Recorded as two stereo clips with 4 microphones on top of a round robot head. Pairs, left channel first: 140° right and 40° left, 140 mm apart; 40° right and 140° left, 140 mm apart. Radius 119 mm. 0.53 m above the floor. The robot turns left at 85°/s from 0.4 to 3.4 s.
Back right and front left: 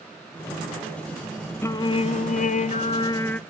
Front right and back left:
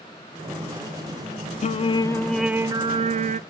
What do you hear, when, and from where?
1.6 s singing: 70° right, 0.5 m; by 3.4 s 140° left, 0.5 m